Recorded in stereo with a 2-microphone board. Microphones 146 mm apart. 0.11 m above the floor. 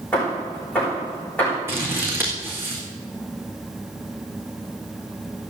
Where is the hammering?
10° left (ahead or behind), 8 m.